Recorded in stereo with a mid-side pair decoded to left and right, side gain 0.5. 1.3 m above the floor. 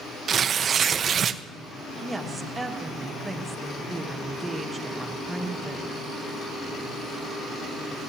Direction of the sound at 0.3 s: 45° right.